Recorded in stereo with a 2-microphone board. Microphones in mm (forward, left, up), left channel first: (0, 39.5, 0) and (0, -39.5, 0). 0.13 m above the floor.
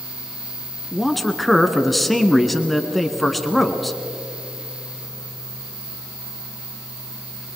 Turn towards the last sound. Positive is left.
turn(degrees=0)  # may be behind; listen again after turning